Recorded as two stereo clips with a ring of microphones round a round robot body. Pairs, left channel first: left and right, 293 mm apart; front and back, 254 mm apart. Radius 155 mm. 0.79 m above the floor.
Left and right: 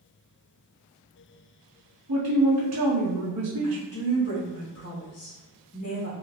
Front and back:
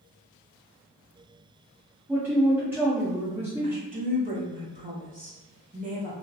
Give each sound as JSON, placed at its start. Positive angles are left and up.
{"t": 2.1, "sound": "a man speaking", "azimuth_deg": -100, "distance_m": 1.0}
{"t": 3.6, "sound": "a woman speaking", "azimuth_deg": 125, "distance_m": 1.6}